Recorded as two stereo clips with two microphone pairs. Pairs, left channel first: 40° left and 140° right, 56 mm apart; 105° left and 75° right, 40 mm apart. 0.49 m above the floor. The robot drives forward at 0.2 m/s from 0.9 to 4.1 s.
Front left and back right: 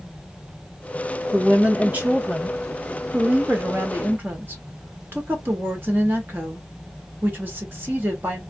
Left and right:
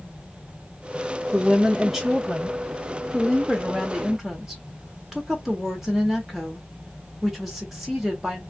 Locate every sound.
1.3 s a woman speaking: 135° right, 1.0 m; by 8.4 s 160° right, 1.3 m